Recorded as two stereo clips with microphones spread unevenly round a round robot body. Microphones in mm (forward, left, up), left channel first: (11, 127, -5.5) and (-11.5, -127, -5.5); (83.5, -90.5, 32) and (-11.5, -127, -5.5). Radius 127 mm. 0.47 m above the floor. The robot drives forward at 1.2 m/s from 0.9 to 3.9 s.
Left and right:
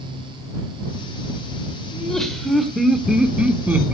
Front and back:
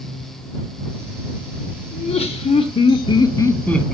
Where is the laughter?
5° right, 2.5 m; by 4.0 s 165° right, 1.3 m.